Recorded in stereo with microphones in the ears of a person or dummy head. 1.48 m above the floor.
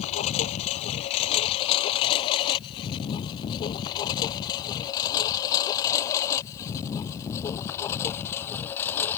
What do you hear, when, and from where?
0.0 s a lawn mower: 35° left (ahead or behind); by 9.2 s 10° left (ahead or behind)